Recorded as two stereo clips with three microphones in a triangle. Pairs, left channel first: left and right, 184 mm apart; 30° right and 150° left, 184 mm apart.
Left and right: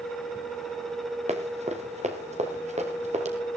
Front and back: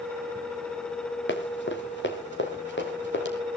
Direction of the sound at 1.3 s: 35° right.